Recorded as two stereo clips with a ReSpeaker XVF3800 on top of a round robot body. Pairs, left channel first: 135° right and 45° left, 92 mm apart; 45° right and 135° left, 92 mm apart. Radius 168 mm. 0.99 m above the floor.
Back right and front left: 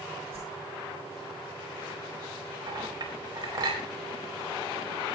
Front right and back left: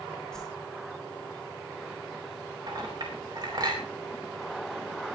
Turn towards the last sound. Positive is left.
turn(degrees=90)